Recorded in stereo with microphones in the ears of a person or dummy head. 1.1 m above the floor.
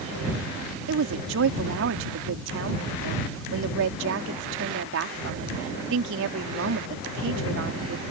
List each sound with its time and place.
0.9 s a woman speaking: 70° right (ahead or behind)